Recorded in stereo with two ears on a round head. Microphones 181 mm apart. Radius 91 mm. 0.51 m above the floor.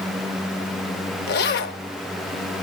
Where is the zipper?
50° left (ahead or behind), 0.6 m.